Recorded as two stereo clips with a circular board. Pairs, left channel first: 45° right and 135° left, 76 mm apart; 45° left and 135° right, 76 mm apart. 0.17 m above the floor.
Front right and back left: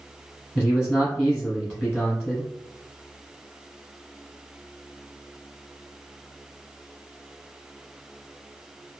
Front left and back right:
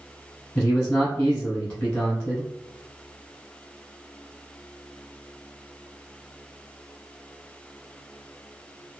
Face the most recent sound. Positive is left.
turn(degrees=-10)